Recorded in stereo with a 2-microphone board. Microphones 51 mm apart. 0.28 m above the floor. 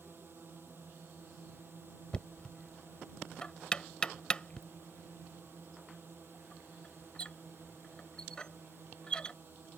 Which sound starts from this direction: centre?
Knocking, at 2.1 s.